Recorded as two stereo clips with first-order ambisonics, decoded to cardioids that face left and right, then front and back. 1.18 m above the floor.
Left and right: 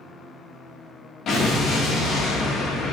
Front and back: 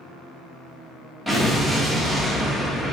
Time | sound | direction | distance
1.3 | an explosion | 95° left | 0.5 m